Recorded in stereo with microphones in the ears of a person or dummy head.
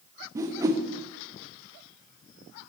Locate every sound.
0.3 s a whoosh: 20° right (ahead or behind), 0.6 m